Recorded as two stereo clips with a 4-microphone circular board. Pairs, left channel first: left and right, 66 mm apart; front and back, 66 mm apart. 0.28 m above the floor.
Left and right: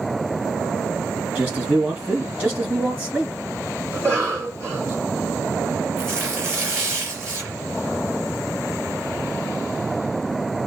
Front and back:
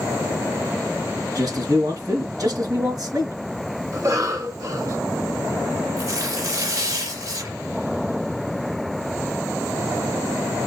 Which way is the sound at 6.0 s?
145° right.